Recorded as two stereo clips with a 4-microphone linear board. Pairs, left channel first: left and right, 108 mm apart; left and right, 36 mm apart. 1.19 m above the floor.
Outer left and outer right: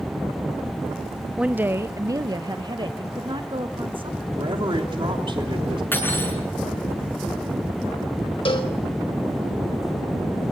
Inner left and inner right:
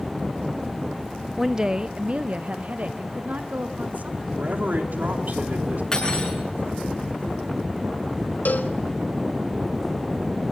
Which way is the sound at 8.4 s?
65° left (ahead or behind).